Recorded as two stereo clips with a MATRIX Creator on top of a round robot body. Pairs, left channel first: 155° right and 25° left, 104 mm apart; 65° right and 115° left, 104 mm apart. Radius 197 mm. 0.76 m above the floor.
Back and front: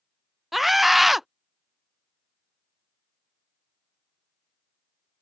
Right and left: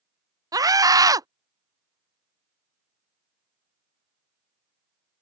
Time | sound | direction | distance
0.5 | a scream | 110° left | ?